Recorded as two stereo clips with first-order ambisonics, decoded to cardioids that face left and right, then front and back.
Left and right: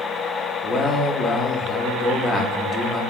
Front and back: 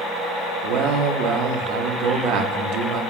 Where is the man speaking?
165° left, 0.6 m.